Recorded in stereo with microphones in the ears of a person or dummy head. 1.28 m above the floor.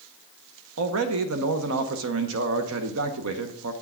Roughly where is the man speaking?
Right.